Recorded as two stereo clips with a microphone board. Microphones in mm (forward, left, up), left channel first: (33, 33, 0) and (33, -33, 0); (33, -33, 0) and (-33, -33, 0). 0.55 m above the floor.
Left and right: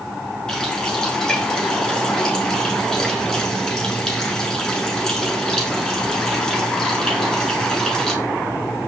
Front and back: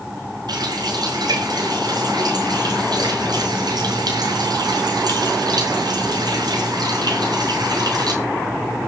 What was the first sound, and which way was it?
A running tap, 170° left.